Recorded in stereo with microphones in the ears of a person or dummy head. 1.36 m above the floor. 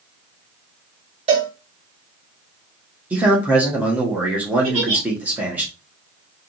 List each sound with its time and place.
1.3 s a cowbell: 35° right (ahead or behind), 1.4 m
3.1 s a man speaking: 5° right (ahead or behind), 1.4 m
4.6 s a giggle: 40° right (ahead or behind), 2.0 m